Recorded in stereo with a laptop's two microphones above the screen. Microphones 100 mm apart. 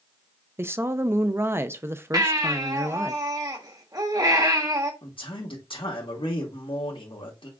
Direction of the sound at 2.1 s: 40° right (ahead or behind).